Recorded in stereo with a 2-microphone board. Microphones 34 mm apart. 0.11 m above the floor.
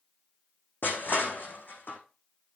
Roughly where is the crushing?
Left.